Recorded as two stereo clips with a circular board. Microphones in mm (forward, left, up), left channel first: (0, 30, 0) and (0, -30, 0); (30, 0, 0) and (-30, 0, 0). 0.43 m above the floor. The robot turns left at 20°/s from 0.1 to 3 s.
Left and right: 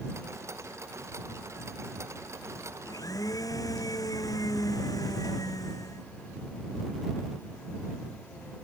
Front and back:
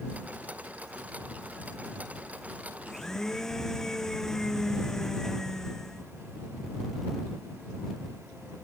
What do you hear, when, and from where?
2.9 s a blender: 85° left; by 6.1 s 80° left